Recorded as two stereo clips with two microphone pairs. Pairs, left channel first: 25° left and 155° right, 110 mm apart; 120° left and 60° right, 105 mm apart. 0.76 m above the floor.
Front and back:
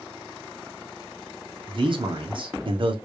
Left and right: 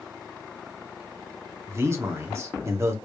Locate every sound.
1.7 s a man speaking: 120° right, 1.1 m